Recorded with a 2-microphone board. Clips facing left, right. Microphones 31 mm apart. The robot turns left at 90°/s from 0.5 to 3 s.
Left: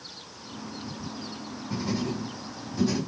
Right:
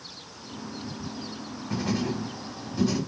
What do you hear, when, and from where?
1.7 s writing: 70° right (ahead or behind), 4.5 m; by 3.0 s 10° left (ahead or behind), 4.5 m